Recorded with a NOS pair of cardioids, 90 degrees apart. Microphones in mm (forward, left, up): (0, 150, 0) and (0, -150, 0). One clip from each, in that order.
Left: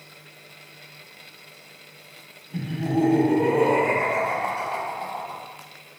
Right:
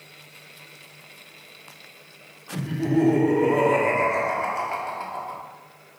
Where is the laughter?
70° right, 1.6 m.